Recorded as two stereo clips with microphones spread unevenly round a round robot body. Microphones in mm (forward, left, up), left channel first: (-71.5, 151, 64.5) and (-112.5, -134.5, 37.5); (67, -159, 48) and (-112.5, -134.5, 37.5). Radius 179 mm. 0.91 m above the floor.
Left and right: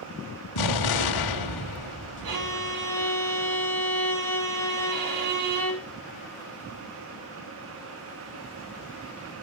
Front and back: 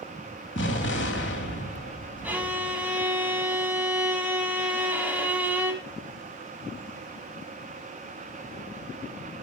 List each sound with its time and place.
0.6 s an explosion: 50° left, 2 m
2.2 s a violin: 105° right, 6.5 m